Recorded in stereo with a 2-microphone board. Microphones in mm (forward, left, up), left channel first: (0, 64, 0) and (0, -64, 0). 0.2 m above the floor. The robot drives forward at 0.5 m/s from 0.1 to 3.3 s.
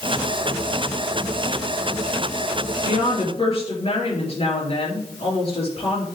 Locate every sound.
2.9 s a woman speaking: 55° left (ahead or behind), 3.5 m